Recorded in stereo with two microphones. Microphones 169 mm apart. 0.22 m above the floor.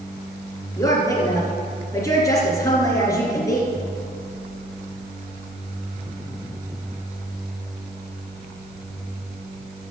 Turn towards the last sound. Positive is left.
turn(degrees=20)  # may be behind; listen again after turning